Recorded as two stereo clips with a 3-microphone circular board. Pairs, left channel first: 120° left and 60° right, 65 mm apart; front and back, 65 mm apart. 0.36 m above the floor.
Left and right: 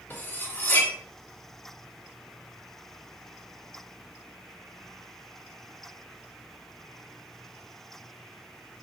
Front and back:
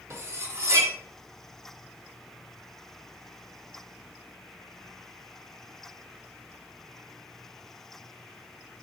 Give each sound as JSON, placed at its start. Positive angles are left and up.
{"t": 0.1, "sound": "cutlery clinking", "azimuth_deg": 165, "distance_m": 0.8}